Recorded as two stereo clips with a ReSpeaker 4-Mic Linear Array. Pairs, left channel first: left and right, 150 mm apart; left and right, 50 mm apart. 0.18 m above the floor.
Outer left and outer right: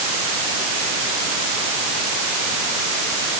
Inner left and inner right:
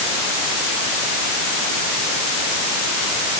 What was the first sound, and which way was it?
Only background noise.